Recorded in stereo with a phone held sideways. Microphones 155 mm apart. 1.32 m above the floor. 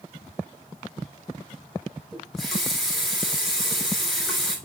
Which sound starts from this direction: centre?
A running tap, at 2.1 s.